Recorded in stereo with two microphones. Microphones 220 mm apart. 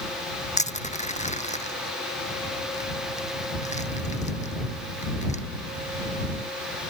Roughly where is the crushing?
Left.